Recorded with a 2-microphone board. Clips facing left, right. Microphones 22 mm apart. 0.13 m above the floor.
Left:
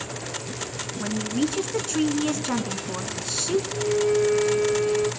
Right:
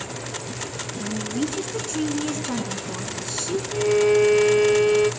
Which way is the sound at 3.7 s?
60° right (ahead or behind).